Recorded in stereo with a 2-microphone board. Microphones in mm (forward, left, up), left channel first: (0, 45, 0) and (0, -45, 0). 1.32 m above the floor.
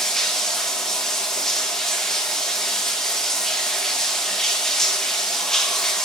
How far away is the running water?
About 1.1 m.